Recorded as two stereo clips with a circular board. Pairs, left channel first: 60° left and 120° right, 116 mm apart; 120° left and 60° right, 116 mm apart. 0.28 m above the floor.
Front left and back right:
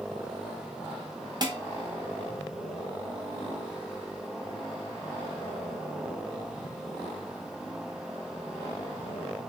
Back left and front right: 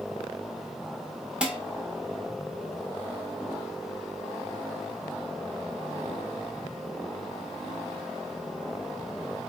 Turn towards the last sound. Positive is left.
turn(degrees=-135)